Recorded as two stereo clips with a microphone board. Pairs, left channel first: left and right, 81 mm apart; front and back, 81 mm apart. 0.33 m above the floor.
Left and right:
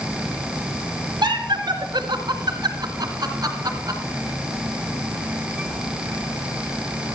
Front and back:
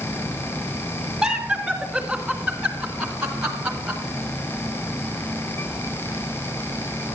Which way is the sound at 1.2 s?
95° right.